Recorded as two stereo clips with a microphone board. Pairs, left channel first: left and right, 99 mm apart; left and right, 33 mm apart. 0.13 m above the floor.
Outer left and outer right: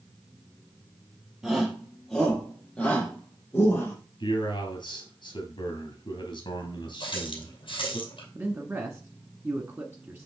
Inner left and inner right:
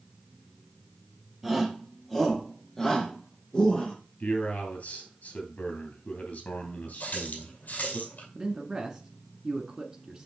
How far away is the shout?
About 2.5 m.